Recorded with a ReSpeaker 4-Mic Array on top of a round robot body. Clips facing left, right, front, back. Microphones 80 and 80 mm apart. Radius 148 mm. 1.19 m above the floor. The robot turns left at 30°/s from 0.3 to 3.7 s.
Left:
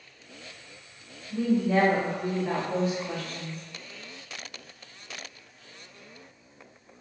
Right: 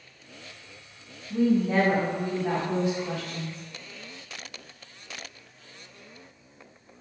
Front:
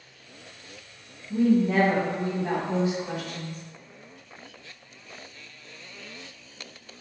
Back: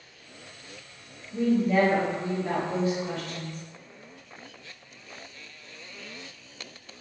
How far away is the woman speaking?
About 1.2 m.